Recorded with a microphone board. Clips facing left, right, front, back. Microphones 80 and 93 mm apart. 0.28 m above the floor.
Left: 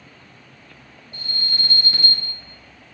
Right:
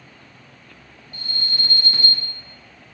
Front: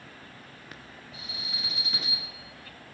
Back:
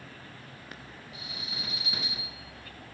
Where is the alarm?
95° left, 1.9 m.